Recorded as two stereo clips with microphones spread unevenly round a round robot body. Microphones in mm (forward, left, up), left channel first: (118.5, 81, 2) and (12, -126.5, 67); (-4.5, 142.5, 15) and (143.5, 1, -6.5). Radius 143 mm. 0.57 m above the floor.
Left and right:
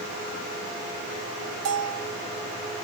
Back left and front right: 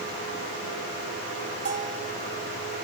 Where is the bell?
105° right, 1.4 m.